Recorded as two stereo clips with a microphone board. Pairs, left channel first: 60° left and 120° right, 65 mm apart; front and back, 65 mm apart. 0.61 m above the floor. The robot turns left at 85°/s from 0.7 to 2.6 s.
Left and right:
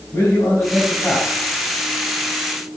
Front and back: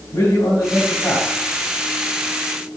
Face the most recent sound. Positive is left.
turn(degrees=-145)